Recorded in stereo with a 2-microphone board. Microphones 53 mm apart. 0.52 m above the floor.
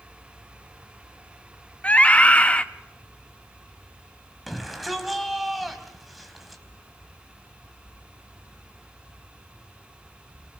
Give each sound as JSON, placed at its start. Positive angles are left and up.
{"t": 1.8, "sound": "a scream", "side_deg": 25, "distance_m": 0.9}
{"t": 4.5, "sound": "a shout", "side_deg": 0, "distance_m": 3.5}